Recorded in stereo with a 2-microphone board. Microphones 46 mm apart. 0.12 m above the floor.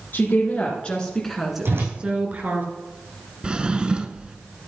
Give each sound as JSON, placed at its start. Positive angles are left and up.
{"t": 0.1, "sound": "a woman speaking", "side_deg": 45, "distance_m": 2.0}
{"t": 1.6, "sound": "a whoosh", "side_deg": -65, "distance_m": 4.5}
{"t": 3.4, "sound": "a drawer", "side_deg": -20, "distance_m": 0.6}